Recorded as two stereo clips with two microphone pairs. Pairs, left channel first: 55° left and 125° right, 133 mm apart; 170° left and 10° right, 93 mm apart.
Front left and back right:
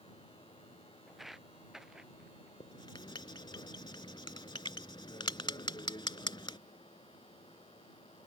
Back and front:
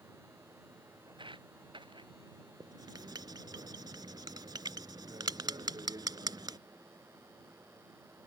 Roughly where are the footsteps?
Ahead right.